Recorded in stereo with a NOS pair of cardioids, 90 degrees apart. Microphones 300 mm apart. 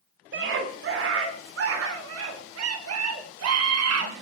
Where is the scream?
40° right, 3.5 m; by 4.1 s 60° right, 5 m.